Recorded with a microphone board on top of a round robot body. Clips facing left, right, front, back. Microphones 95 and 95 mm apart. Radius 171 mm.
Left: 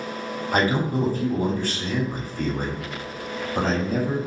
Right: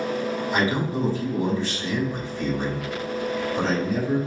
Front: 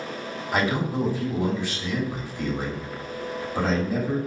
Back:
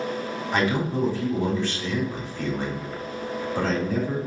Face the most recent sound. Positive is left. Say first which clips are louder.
# left 4 dB, even
turn(degrees=75)